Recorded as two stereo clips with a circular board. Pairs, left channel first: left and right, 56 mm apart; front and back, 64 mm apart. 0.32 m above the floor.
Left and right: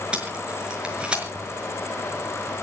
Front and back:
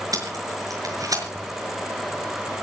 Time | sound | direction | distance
0.1 | tape being pulled | 160° right | 5 m